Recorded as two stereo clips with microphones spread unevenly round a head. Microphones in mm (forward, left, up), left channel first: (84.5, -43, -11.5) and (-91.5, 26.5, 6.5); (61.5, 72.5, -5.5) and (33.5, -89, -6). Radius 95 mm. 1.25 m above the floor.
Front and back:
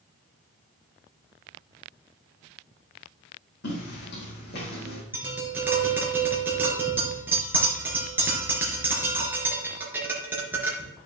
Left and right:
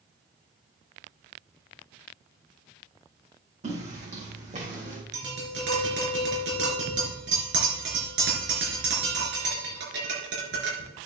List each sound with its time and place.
3.6 s footsteps: 55° right, 4.5 m; by 5.0 s 60° right, 4 m
5.1 s tapping: 125° right, 4 m